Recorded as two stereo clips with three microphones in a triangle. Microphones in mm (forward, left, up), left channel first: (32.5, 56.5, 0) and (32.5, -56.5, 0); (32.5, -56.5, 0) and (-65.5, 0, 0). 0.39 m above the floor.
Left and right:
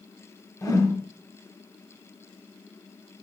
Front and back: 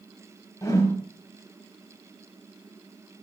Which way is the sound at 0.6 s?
30° left.